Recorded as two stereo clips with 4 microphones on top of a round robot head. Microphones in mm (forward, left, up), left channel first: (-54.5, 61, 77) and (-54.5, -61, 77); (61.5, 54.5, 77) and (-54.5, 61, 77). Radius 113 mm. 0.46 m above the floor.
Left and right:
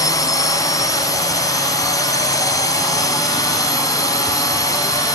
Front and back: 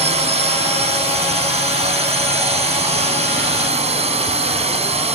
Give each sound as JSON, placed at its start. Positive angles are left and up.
{"t": 0.0, "sound": "a drone", "azimuth_deg": 150}